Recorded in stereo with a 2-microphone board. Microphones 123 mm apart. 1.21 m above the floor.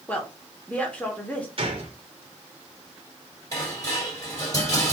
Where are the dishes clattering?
30° left (ahead or behind), 1.9 m.